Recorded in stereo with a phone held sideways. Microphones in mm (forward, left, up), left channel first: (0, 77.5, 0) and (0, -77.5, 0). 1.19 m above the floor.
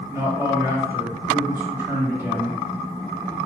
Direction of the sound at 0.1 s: 15° right (ahead or behind).